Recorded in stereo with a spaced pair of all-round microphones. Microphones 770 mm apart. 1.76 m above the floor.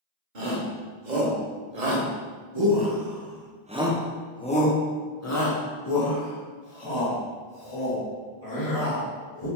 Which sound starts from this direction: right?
A shout, at 0.3 s.